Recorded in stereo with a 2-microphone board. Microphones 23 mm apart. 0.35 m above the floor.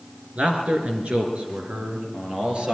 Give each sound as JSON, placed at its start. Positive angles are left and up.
{"t": 0.3, "sound": "a man speaking", "side_deg": -65, "distance_m": 4.0}